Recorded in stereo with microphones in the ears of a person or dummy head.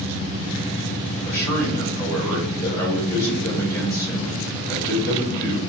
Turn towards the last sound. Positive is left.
turn(degrees=10)  # may be behind; listen again after turning